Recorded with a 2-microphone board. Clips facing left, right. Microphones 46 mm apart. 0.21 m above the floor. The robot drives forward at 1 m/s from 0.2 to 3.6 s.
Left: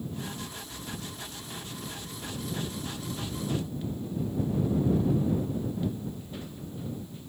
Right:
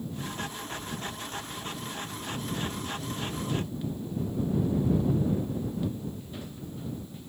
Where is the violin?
No violin in this recording.